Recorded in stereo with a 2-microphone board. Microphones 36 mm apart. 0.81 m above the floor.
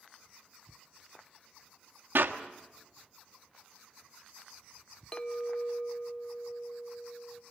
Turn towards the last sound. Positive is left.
turn(degrees=30)  # may be behind; listen again after turning